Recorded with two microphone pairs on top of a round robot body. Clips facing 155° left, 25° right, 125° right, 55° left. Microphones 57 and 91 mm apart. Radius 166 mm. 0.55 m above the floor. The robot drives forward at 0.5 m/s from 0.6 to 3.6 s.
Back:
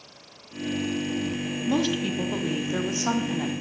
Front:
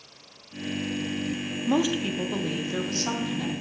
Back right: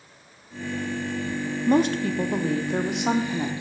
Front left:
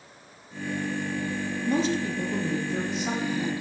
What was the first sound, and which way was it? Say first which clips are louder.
A woman speaking: front 1 dB, back right 5 dB; 105° right.